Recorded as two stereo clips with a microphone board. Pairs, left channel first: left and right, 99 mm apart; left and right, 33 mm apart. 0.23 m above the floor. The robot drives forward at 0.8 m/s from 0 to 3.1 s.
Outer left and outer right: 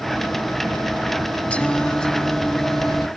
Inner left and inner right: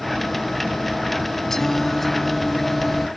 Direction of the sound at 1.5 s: 15° left (ahead or behind).